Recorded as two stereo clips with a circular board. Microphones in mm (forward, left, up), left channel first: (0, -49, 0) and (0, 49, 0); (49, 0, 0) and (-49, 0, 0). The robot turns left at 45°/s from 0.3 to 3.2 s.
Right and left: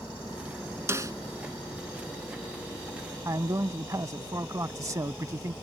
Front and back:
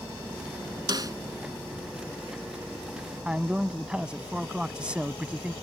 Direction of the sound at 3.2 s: 110° left.